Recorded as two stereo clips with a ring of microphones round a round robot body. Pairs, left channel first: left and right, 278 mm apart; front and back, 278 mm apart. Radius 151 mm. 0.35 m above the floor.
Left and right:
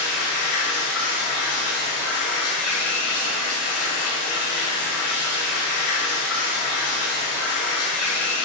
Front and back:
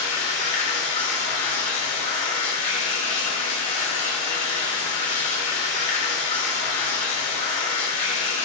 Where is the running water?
60° left, 1.1 m.